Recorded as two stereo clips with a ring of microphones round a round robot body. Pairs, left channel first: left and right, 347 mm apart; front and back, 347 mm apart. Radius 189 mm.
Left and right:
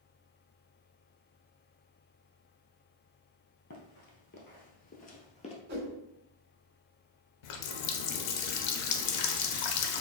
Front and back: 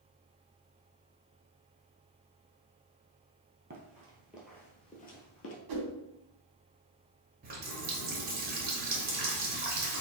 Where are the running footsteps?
130° left, 0.9 m; by 5.5 s 25° left, 1.0 m.